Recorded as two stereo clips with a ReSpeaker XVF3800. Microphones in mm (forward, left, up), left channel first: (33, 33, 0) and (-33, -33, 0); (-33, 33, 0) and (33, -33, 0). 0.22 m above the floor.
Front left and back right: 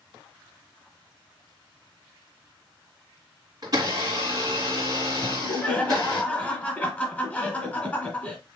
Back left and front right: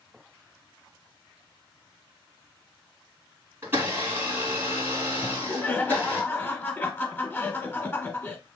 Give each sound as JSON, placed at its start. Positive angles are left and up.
{"t": 3.6, "sound": "a blender", "azimuth_deg": -105, "distance_m": 2.5}
{"t": 5.2, "sound": "laughter", "azimuth_deg": 95, "distance_m": 1.3}